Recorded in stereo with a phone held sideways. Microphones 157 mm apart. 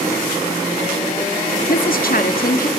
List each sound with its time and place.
1.7 s a woman speaking: 65° left (ahead or behind), 1.6 m